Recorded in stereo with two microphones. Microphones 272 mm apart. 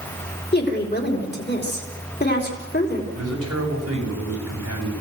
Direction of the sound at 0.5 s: 35° left (ahead or behind).